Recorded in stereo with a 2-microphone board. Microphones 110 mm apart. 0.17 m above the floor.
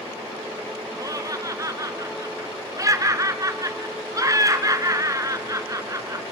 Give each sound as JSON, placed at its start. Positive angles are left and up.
{"t": 1.0, "sound": "laughter", "side_deg": -35, "distance_m": 1.8}